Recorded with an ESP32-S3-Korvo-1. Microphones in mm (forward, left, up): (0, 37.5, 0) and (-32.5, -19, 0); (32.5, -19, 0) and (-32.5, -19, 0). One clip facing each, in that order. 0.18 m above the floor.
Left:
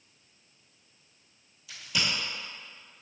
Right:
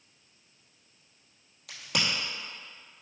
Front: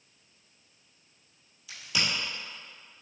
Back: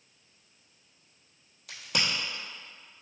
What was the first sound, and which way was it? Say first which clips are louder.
A crack: right 1 dB, even; 145° right.